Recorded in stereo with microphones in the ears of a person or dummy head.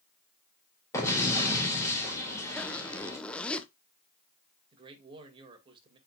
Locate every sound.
0.9 s an explosion: 20° left (ahead or behind), 3 m
2.6 s a zipper: 10° left (ahead or behind), 0.7 m
4.7 s a man speaking: 30° right (ahead or behind), 2 m